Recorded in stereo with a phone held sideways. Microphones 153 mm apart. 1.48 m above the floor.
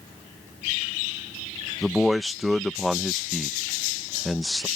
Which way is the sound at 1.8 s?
Centre (ahead or behind).